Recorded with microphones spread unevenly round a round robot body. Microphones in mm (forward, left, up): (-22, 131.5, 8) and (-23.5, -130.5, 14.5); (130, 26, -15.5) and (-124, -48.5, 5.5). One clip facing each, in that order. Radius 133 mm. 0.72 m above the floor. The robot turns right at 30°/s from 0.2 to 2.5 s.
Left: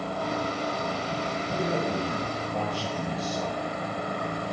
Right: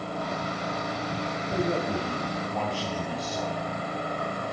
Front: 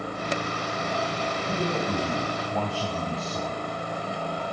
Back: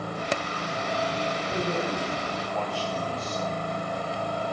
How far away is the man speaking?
About 4 m.